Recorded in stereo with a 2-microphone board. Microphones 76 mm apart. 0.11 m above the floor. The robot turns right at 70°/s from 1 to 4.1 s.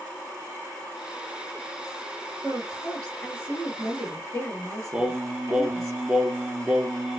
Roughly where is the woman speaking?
Ahead.